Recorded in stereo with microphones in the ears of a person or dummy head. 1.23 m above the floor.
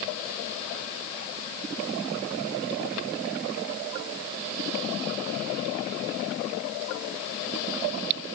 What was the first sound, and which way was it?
Only background noise.